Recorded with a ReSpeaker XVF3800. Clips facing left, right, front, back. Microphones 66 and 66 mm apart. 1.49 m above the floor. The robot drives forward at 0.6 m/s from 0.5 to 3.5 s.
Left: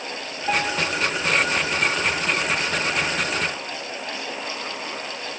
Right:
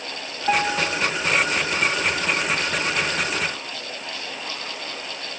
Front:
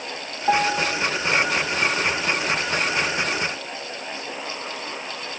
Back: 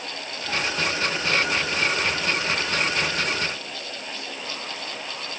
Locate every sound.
0.5 s a piano: 20° right